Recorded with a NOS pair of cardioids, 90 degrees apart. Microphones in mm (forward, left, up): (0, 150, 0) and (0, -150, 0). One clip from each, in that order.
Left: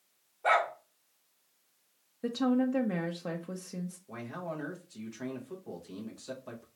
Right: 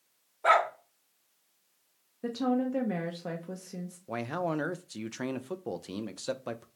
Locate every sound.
0.4 s a dog barking: 50° right, 1.6 m
2.2 s a woman speaking: straight ahead, 0.5 m
4.1 s a man speaking: 55° right, 0.6 m